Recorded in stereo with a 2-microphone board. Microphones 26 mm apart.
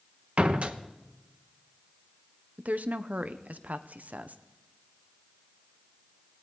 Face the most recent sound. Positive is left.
turn(degrees=-80)